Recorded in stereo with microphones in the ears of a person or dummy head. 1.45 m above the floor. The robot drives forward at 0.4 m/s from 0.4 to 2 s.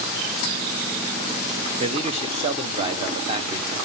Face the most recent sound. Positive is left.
turn(degrees=-30)  # may be behind; listen again after turning